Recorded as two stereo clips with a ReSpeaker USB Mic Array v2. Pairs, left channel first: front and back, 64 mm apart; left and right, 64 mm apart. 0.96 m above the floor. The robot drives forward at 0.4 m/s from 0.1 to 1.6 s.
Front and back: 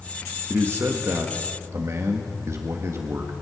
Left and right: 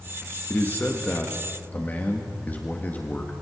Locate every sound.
0.5 s a man speaking: 140° left, 1.5 m; by 3.3 s 150° left, 1.8 m